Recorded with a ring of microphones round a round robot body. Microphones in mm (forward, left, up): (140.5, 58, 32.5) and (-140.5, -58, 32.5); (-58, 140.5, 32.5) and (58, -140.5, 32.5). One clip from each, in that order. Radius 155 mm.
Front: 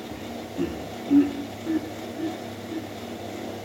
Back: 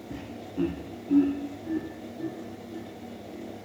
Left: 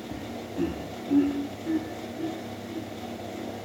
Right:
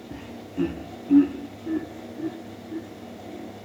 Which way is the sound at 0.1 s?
130° right.